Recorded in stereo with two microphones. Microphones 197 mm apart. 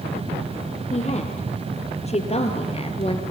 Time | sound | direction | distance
0.9 | a woman speaking | 35° left (ahead or behind) | 5.5 m